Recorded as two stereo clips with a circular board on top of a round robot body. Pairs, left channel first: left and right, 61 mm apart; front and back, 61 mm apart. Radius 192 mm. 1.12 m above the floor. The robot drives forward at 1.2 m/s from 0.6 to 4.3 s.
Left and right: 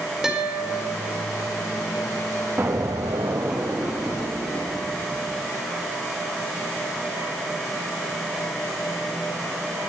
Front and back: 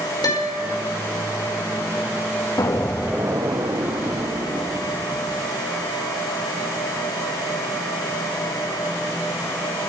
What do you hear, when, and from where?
0.2 s a guitar: 5° right, 4.5 m
2.6 s an explosion: 30° right, 0.7 m; by 5.5 s 170° right, 1.6 m